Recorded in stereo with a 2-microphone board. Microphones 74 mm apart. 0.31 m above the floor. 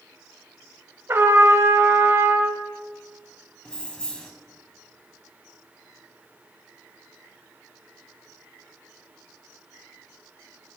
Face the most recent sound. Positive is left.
turn(degrees=10)  # may be behind; listen again after turning